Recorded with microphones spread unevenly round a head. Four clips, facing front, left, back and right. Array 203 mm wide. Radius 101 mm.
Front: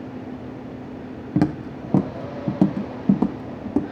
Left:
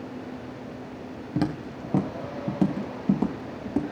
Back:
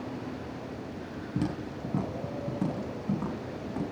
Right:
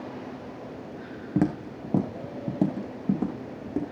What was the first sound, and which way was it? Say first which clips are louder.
Footsteps: right 2 dB, front 11 dB; 10° right.